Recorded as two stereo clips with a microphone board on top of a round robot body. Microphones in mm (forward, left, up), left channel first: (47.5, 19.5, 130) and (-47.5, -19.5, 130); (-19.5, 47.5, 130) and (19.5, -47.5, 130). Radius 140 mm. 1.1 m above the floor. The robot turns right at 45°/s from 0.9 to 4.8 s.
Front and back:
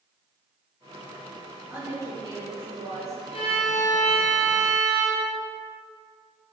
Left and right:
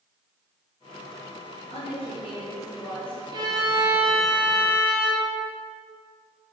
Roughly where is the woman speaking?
Behind left.